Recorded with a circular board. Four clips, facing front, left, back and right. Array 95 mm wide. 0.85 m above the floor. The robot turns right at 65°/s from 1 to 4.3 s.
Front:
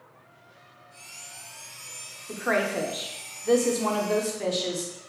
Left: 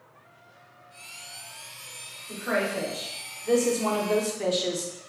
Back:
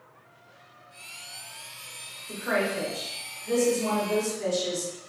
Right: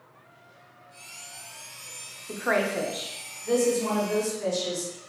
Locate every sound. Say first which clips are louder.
2.3 s a woman speaking: right 2 dB, front 1 dB; 70° right, 0.5 m; by 4.9 s 65° left, 0.5 m